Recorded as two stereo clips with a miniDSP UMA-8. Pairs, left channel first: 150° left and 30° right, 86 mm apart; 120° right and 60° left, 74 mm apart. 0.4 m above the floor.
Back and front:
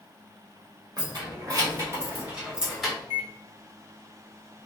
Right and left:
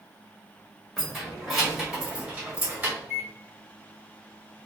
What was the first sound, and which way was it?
Keys jangling, 35° right.